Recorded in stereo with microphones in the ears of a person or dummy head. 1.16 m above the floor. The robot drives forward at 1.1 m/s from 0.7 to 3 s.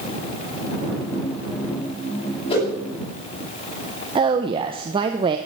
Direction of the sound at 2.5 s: 30° left (ahead or behind).